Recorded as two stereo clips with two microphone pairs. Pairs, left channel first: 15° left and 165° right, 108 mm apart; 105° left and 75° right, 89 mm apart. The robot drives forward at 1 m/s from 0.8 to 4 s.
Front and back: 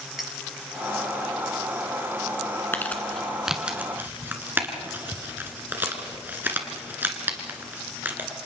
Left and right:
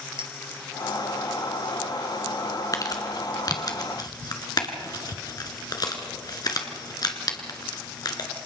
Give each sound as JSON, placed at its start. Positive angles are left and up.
{"t": 0.2, "sound": "a clink", "azimuth_deg": -75, "distance_m": 2.0}
{"t": 2.7, "sound": "crumpling", "azimuth_deg": 80, "distance_m": 1.8}